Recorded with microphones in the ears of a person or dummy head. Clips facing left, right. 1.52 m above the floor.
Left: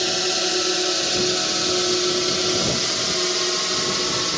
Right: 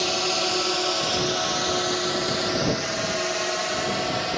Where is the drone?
15° left (ahead or behind); by 4.4 s 65° left (ahead or behind).